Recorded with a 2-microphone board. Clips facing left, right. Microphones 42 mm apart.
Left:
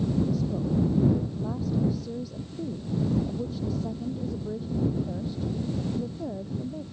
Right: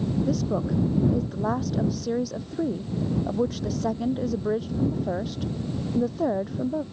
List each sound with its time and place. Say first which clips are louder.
0.3 s a woman speaking: right 3 dB; 75° right (ahead or behind)